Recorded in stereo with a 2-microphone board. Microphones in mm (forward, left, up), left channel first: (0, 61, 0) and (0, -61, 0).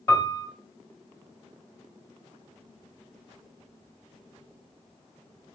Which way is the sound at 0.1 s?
25° left (ahead or behind).